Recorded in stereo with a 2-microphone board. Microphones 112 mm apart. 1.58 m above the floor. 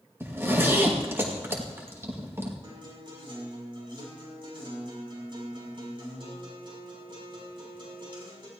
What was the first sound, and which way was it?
A zipper, 20° right (ahead or behind).